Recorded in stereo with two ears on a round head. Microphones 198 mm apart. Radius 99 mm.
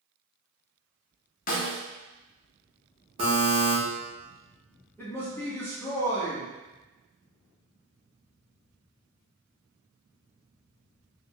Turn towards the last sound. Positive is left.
turn(degrees=10)  # may be behind; listen again after turning